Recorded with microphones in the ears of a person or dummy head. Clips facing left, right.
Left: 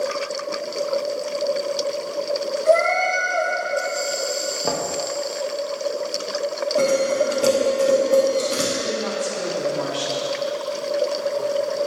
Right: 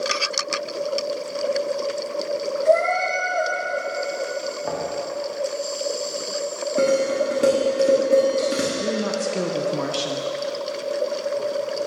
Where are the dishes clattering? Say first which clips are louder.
Even; 30° right (ahead or behind), 2 m.